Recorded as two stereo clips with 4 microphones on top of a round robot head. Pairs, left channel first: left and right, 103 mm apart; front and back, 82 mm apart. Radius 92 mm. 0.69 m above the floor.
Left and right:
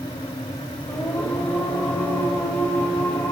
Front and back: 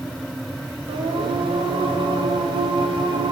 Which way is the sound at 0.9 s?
165° left.